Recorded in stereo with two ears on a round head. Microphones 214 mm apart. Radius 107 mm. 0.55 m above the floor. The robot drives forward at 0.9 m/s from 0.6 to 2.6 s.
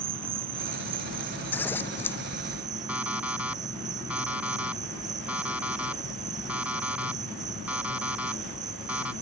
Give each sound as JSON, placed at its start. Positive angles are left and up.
{"t": 0.0, "sound": "an insect", "side_deg": -60}
{"t": 1.5, "sound": "scissors", "side_deg": 10}
{"t": 2.9, "sound": "an alarm clock", "side_deg": -5}